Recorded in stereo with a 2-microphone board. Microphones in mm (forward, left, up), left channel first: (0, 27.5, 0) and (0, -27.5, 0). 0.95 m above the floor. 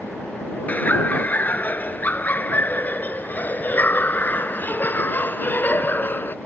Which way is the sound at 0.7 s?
30° left (ahead or behind).